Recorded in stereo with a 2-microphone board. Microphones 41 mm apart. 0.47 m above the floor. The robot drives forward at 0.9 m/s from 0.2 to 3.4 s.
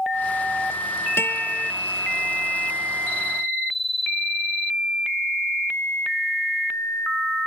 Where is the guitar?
80° left.